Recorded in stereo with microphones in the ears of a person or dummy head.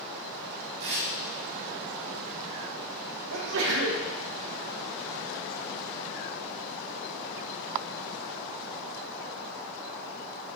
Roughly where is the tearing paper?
Right.